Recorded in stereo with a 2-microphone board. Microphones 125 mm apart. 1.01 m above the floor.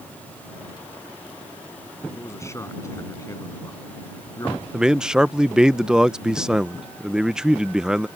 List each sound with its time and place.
2.1 s a man speaking: 20° left (ahead or behind); by 4.6 s 30° left (ahead or behind)
4.7 s a man speaking: 5° right (ahead or behind)